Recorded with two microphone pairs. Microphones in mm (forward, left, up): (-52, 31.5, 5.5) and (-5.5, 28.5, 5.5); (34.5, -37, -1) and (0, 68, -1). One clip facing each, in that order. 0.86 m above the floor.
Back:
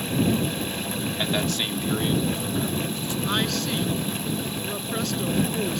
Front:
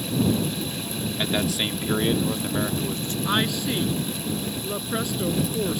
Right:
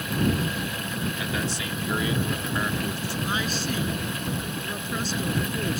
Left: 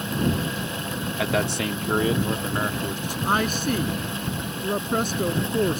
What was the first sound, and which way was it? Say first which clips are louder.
A man speaking: front 2 dB, left 5 dB; 90° left.